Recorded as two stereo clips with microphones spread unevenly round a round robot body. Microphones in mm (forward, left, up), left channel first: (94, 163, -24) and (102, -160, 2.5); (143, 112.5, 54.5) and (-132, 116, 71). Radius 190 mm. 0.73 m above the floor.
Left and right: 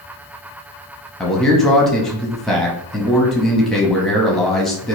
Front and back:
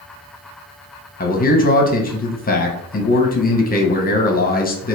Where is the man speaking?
10° left, 0.8 m.